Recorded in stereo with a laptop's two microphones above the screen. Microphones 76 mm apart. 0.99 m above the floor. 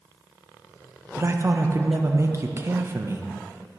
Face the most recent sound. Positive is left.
turn(degrees=-35)  # may be behind; listen again after turning